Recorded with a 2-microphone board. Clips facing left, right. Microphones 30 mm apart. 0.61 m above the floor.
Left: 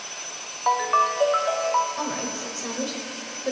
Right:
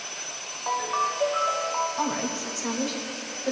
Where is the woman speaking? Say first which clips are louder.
Right 1 dB; 15° left (ahead or behind), 3 m.